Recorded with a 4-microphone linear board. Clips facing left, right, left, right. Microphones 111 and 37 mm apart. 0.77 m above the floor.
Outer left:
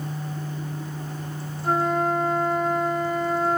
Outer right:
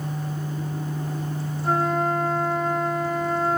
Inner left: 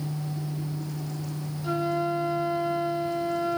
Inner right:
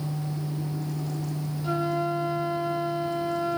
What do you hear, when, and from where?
1.6 s a flute: centre (ahead or behind), 0.6 m